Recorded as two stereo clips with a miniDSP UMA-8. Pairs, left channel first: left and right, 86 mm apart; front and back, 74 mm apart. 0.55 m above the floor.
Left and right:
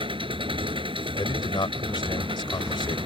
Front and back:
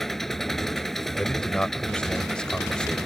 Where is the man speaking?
75° left.